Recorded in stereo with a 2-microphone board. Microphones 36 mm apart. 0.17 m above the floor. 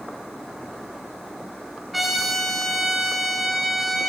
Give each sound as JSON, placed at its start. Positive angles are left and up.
{"t": 1.9, "sound": "a trumpet", "side_deg": 0, "distance_m": 1.7}